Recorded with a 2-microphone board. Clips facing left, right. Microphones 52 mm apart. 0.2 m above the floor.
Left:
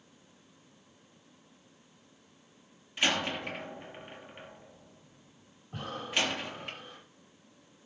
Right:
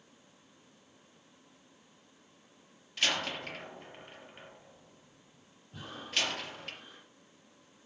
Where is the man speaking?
I don't hear a man speaking.